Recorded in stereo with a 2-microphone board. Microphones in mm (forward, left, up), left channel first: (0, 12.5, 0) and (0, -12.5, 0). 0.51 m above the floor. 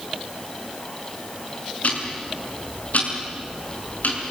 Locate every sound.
1.8 s ticking: 80° left, 6.5 m